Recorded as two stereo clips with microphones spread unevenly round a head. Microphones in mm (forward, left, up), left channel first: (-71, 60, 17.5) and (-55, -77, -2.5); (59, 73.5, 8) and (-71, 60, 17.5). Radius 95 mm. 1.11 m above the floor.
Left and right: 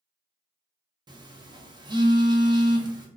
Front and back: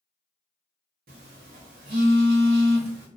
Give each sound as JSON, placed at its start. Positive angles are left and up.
{"t": 1.1, "sound": "a phone buzzing", "azimuth_deg": -145, "distance_m": 0.6}